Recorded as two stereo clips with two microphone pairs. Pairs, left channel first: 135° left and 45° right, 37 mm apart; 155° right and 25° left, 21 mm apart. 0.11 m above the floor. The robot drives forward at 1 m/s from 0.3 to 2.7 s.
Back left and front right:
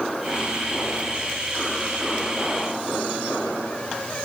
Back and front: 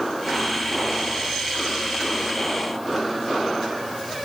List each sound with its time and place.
Only background noise.